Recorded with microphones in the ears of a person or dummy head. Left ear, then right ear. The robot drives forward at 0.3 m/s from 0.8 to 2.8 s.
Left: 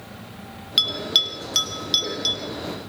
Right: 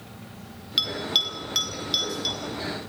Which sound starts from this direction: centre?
A bell, at 0.8 s.